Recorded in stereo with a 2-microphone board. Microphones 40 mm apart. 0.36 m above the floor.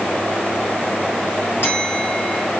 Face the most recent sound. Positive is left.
turn(degrees=60)  # may be behind; listen again after turning